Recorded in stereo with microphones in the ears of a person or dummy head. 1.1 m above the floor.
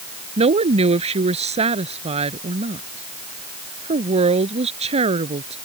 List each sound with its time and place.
0.4 s a woman speaking: 30° right (ahead or behind)